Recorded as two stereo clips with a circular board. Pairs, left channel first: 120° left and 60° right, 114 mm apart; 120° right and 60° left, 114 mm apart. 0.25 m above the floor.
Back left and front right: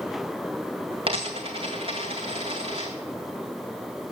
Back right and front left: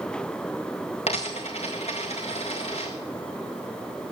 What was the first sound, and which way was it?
A dropped coin, 95° right.